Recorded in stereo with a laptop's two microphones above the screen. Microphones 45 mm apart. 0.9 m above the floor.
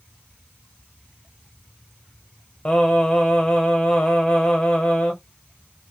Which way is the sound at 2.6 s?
20° left (ahead or behind).